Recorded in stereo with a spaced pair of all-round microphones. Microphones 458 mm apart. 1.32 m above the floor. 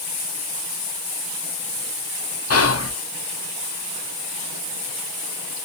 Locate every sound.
2.5 s whispering: 35° left (ahead or behind), 0.5 m